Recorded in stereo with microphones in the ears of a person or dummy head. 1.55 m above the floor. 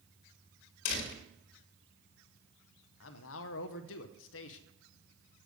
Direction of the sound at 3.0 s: 75° left (ahead or behind).